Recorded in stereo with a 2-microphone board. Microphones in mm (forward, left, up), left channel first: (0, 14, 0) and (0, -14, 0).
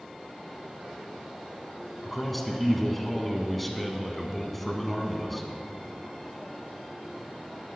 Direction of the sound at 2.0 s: 5° left (ahead or behind).